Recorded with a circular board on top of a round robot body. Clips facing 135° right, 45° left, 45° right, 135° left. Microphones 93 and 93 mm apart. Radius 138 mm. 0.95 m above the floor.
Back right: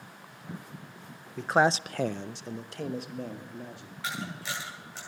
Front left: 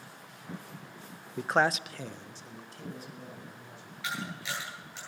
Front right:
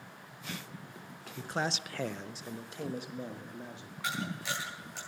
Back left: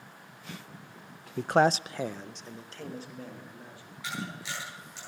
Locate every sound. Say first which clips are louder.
1.4 s a man speaking: back right 3 dB, back left 11 dB; 120° left, 0.6 m; by 3.9 s 115° right, 2.5 m
4.0 s a camera shutter: back right 1 dB, front right 2 dB; 85° right, 9.5 m